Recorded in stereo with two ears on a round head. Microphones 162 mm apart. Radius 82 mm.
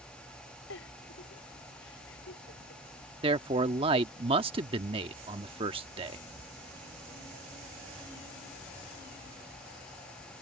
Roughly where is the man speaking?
Right.